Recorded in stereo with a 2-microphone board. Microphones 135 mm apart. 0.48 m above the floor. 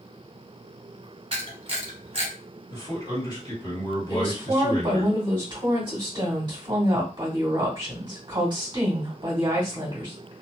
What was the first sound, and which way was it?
A camera shutter, 50° right (ahead or behind).